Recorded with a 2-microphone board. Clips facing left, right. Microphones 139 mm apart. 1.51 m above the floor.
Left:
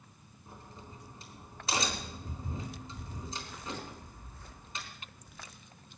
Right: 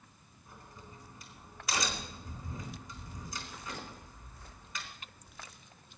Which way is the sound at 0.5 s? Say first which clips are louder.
Left 2 dB; 30° left (ahead or behind).